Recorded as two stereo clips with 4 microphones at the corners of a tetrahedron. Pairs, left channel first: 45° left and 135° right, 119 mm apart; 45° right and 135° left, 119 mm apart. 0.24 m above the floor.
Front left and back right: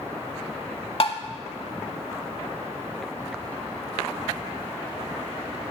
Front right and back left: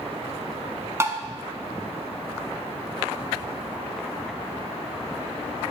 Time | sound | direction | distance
1.0 | tapping | 70° left | 0.5 m